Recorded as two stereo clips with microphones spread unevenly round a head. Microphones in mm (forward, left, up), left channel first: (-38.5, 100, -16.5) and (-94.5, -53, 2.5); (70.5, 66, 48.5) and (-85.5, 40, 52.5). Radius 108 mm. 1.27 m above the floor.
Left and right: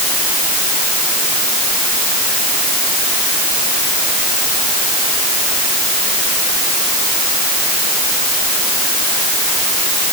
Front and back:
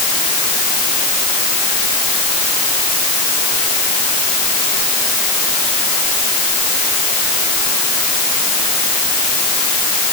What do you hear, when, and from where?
Only background noise.